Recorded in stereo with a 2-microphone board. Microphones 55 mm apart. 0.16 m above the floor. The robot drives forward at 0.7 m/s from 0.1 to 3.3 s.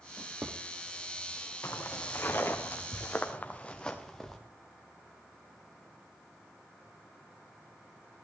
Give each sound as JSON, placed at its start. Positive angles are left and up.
{"t": 0.2, "sound": "a drawer", "side_deg": -45, "distance_m": 3.0}
{"t": 1.6, "sound": "footsteps", "side_deg": 50, "distance_m": 3.0}